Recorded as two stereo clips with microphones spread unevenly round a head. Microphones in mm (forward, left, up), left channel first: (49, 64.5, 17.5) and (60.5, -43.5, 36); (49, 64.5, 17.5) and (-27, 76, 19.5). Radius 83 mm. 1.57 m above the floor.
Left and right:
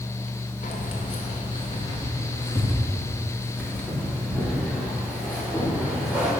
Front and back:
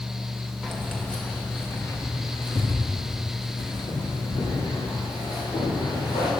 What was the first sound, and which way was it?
Keys jangling, 85° left.